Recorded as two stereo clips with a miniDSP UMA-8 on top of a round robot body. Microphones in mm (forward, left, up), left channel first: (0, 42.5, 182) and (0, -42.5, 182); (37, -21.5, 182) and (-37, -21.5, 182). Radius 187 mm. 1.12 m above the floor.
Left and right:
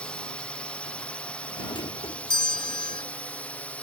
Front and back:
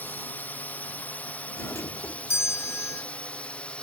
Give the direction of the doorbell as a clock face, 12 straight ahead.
10 o'clock.